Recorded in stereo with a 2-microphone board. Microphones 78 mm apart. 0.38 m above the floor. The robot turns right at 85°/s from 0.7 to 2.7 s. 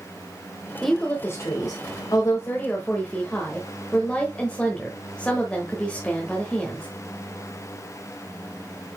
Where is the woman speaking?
Straight ahead, 1.1 m; by 6.9 s 160° left, 1.1 m.